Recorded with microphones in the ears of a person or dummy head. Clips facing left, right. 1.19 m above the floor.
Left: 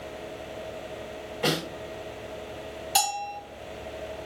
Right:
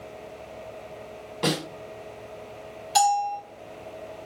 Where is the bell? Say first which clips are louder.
Right 8 dB; 5° right (ahead or behind), 2 m.